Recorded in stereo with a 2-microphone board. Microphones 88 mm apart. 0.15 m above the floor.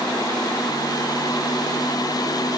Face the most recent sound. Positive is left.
No sound to turn to.